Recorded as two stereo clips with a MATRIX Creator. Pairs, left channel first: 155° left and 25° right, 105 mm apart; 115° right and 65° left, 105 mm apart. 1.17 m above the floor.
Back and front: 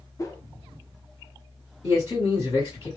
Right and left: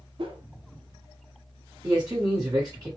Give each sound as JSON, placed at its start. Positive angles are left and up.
{"t": 0.2, "sound": "a whoosh", "azimuth_deg": 100, "distance_m": 0.5}
{"t": 1.8, "sound": "a man speaking", "azimuth_deg": 115, "distance_m": 1.6}